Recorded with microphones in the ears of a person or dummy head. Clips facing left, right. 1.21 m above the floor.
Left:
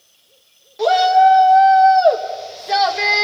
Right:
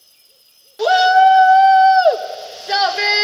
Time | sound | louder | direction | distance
0.8 | a shout | right 1 dB | 5° right (ahead or behind) | 1.6 m